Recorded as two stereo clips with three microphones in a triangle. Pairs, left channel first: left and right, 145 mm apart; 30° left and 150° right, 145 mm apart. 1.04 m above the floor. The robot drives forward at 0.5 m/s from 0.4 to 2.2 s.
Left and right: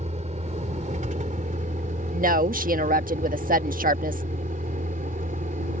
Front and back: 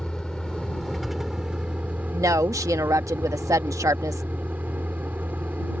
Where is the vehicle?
55° right; by 5.8 s 70° right.